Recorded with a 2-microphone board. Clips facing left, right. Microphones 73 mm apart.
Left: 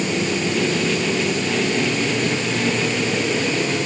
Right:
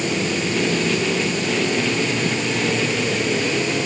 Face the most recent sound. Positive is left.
No sound to turn to.